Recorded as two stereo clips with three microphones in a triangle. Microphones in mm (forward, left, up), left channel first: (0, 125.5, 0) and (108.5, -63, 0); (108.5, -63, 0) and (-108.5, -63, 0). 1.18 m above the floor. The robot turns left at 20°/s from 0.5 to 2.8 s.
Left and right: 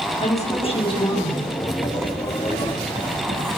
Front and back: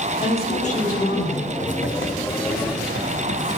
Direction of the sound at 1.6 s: 30° left.